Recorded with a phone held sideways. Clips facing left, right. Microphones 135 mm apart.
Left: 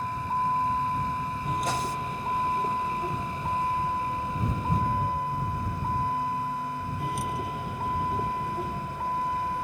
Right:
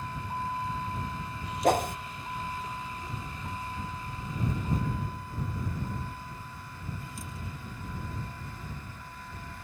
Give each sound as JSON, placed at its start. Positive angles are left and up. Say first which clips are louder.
{"t": 0.0, "sound": "a vehicle", "louder": "left 7 dB", "side_deg": 45}
{"t": 1.6, "sound": "a whoosh", "louder": "right 9 dB", "side_deg": -60}